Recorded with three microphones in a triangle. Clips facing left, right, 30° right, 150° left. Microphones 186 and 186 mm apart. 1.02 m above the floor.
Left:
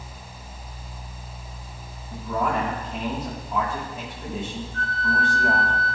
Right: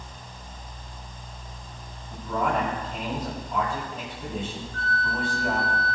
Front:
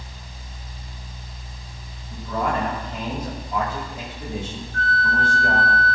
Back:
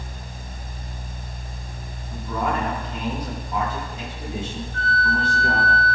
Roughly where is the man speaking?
Ahead.